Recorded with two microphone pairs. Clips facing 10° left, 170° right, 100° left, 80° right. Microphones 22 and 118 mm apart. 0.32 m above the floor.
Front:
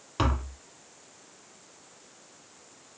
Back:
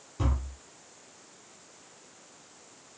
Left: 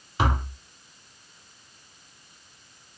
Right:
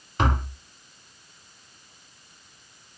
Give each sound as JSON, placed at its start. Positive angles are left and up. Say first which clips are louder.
{"t": 0.2, "sound": "tapping", "louder": "front 6 dB, right 1 dB", "azimuth_deg": 20, "distance_m": 0.7}